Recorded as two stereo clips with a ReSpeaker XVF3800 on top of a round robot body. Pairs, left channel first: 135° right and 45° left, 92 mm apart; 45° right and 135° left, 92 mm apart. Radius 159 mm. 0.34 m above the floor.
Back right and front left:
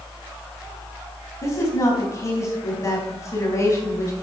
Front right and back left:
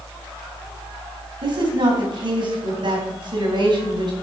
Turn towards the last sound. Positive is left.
turn(degrees=170)